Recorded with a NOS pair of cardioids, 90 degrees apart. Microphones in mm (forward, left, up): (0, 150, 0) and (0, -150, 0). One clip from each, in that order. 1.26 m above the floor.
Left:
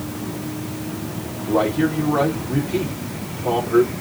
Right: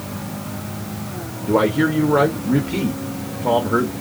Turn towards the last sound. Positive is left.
turn(degrees=-45)